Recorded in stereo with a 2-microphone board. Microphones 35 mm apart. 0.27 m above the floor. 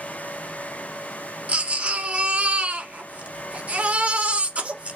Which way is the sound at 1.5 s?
40° right (ahead or behind).